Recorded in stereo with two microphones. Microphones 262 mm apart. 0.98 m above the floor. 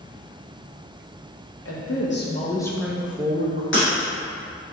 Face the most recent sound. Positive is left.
turn(degrees=50)  # may be behind; listen again after turning